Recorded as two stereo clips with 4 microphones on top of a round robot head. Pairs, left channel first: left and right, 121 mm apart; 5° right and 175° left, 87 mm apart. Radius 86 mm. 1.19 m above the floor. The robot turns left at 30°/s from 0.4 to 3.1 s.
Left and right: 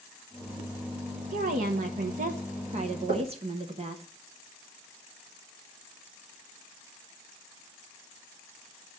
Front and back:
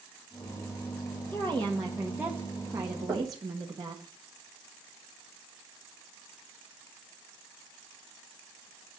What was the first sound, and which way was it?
A woman speaking, 75° right.